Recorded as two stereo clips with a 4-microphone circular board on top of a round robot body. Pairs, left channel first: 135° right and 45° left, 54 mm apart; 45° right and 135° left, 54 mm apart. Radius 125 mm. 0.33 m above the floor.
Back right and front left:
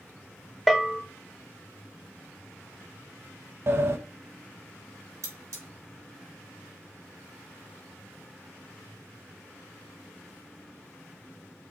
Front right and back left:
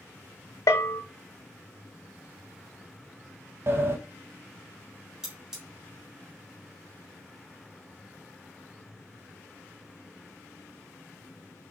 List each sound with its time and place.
0.7 s a bell: 50° right, 0.6 m
3.7 s a sliding door: 90° left, 0.7 m
5.2 s cutlery clinking: 55° left, 2.5 m